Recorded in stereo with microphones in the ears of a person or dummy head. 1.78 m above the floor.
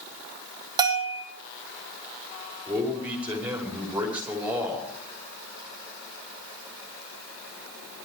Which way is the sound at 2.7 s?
5° right (ahead or behind).